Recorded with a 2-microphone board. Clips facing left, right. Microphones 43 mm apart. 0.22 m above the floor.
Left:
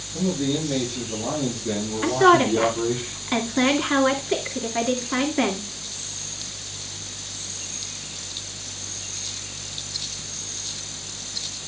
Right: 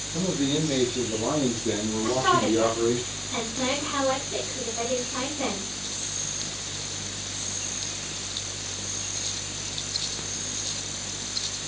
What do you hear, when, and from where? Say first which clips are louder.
0.1 s a man speaking: left 1 dB; 25° right (ahead or behind), 5 m; by 3.0 s 10° right (ahead or behind), 3.5 m
2.0 s a woman speaking: left 7 dB; 70° left (ahead or behind), 2.5 m